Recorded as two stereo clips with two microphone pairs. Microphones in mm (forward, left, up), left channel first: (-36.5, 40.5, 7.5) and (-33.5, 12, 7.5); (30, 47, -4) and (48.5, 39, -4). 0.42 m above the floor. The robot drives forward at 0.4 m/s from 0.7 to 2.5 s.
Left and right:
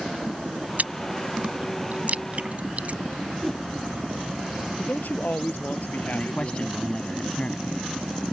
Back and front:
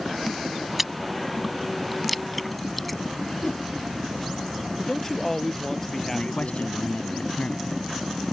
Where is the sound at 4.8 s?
85° left.